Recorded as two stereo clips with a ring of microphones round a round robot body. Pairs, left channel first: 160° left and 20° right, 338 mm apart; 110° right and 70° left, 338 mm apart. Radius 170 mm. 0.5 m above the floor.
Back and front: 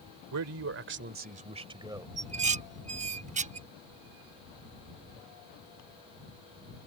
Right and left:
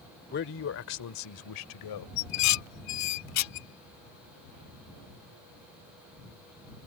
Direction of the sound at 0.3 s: 55° right.